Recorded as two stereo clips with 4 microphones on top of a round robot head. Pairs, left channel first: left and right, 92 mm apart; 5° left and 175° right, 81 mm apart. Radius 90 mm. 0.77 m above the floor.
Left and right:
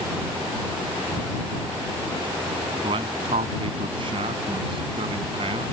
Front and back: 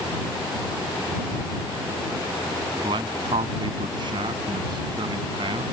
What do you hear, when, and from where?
2.7 s a man speaking: 130° right